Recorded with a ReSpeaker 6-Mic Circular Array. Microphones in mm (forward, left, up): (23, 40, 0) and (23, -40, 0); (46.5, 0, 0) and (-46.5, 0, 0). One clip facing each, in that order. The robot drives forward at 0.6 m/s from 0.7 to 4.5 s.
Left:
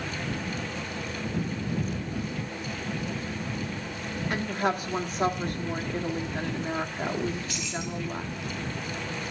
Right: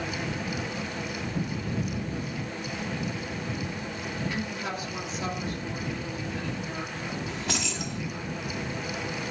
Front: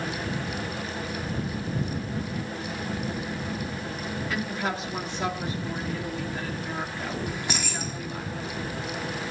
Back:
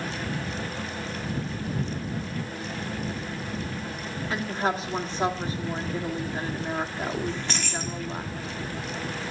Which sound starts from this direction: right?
Keys jangling, at 7.3 s.